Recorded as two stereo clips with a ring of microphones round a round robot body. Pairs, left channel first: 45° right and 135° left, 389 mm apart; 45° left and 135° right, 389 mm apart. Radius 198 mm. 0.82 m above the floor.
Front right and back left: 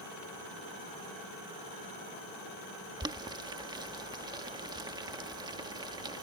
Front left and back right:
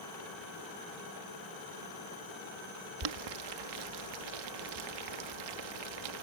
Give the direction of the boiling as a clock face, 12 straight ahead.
5 o'clock.